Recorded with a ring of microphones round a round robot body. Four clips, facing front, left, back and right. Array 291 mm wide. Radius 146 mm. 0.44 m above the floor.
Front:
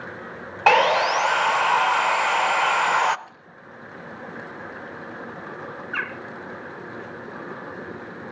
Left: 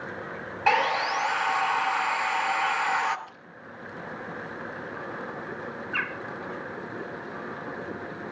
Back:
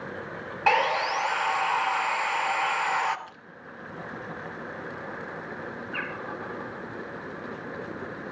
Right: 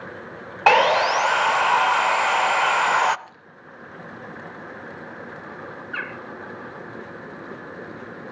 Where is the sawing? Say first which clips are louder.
Right 8 dB, front 6 dB; 60° right, 0.7 m.